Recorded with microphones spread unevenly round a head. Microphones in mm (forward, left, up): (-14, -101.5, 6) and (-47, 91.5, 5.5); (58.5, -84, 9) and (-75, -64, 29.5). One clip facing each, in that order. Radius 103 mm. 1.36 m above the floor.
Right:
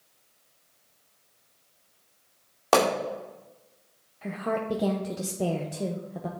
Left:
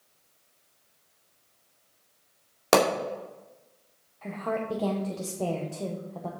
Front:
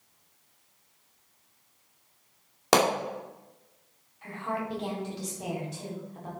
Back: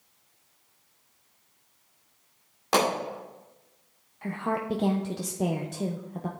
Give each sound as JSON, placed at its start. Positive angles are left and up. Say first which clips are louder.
{"t": 2.7, "sound": "a pop", "louder": "left 1 dB, front 2 dB", "azimuth_deg": 35, "distance_m": 2.0}
{"t": 4.2, "sound": "a woman speaking", "louder": "right 1 dB, back 4 dB", "azimuth_deg": -155, "distance_m": 1.0}